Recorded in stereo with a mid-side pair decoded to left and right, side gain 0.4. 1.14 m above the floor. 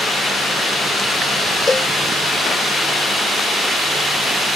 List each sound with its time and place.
1.7 s a cowbell: 35° left